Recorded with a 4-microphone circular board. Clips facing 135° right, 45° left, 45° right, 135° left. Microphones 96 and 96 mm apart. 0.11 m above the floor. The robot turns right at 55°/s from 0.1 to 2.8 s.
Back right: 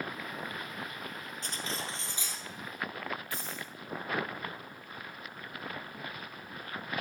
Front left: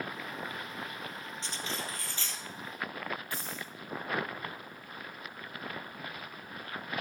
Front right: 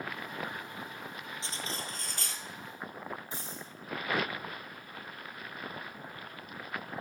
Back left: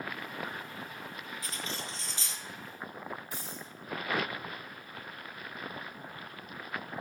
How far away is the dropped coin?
About 7.5 m.